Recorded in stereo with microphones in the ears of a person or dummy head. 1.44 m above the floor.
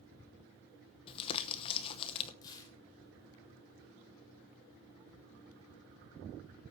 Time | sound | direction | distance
1.1 | crumpling | 35° left (ahead or behind) | 0.9 m
2.4 | tearing paper | 30° left (ahead or behind) | 3 m